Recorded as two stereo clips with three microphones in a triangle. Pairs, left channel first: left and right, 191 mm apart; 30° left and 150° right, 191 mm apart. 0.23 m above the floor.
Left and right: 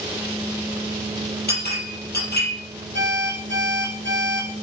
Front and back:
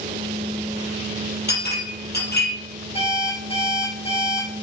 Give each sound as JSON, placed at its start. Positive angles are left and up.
{"t": 1.5, "sound": "a clink", "azimuth_deg": 60, "distance_m": 5.5}
{"t": 3.0, "sound": "an alarm clock", "azimuth_deg": 85, "distance_m": 7.5}